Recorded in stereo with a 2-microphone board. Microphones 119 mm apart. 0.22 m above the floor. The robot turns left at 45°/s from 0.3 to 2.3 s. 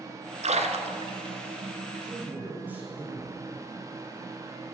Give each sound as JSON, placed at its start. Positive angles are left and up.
{"t": 0.4, "sound": "a splash", "side_deg": -70, "distance_m": 1.1}
{"t": 2.0, "sound": "a man speaking", "side_deg": -5, "distance_m": 4.0}